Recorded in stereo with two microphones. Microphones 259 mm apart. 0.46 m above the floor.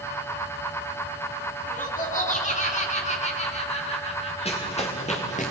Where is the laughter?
30° left (ahead or behind), 4.5 m; by 5.5 s 20° left (ahead or behind), 6 m.